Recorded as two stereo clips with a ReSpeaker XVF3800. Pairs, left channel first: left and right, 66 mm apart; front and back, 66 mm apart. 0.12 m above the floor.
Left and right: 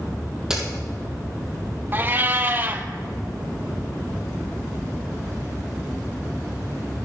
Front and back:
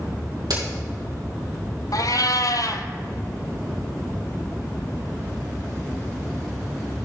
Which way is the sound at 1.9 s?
30° right.